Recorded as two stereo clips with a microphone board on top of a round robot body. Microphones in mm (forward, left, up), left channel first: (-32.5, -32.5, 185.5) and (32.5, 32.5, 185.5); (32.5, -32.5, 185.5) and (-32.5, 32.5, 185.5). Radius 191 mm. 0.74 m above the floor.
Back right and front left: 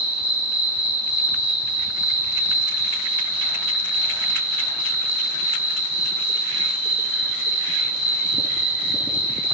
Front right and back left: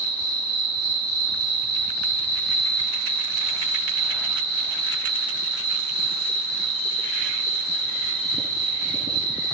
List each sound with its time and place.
0.0 s an insect: 25° left, 3 m